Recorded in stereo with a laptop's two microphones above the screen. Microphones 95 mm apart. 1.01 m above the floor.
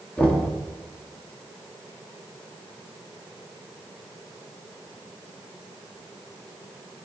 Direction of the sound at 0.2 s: 10° left (ahead or behind).